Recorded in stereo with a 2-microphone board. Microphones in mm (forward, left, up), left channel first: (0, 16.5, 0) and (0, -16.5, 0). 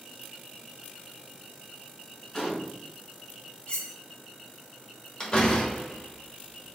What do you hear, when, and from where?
2.3 s a gunshot: 10° left (ahead or behind), 1.5 m
3.7 s cutlery clinking: 35° left (ahead or behind), 0.5 m
5.2 s a door slam: 30° left (ahead or behind), 0.9 m